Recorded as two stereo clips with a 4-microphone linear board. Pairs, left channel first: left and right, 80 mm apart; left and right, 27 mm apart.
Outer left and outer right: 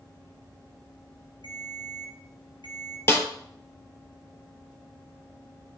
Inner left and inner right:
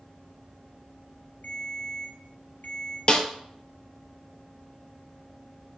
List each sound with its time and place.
1.4 s a ringtone: 80° left, 3.5 m
3.1 s a snare drum: 30° left (ahead or behind), 1.5 m